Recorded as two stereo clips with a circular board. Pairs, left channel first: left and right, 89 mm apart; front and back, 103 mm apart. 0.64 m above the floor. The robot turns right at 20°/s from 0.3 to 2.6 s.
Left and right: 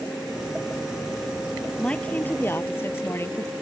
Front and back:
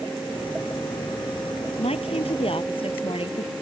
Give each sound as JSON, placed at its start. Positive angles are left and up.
{"t": 1.8, "sound": "a woman speaking", "azimuth_deg": 10}